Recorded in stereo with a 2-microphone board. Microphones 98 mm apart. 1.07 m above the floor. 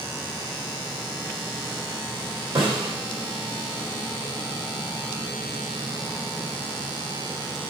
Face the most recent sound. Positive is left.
turn(degrees=-85)